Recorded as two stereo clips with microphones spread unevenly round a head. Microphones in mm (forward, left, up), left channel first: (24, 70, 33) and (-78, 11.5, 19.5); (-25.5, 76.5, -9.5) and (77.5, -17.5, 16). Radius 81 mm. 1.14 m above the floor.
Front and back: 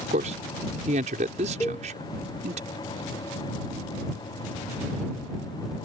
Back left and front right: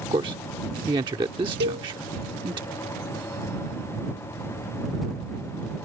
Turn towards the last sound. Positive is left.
turn(degrees=-45)